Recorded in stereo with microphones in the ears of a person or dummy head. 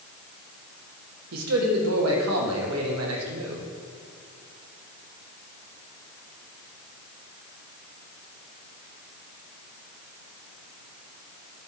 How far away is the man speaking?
About 1.7 m.